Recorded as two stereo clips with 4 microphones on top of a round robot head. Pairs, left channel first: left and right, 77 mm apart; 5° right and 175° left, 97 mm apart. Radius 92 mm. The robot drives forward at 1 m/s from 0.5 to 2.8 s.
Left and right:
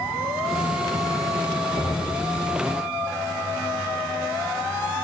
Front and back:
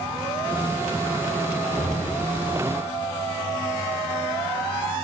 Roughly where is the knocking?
Behind right.